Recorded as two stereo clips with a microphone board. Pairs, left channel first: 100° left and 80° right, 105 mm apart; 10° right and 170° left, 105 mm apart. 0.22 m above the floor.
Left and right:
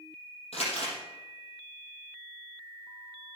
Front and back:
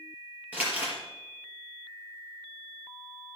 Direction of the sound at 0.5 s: 95° left.